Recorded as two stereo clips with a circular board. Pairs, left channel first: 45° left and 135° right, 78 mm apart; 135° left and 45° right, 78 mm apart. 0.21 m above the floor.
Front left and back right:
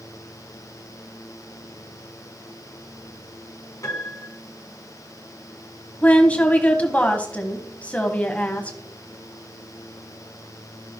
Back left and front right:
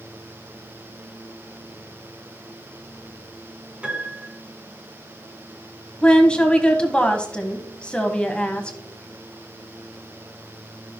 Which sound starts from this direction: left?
A woman speaking, at 6.0 s.